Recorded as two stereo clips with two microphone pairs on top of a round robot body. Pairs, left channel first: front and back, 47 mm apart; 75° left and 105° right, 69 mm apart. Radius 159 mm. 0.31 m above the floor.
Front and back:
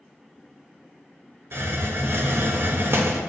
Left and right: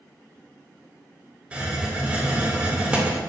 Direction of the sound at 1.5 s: Straight behind.